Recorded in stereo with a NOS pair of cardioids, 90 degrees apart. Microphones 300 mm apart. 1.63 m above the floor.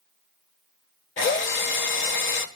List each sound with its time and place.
1.2 s a drill: 40° left, 1.4 m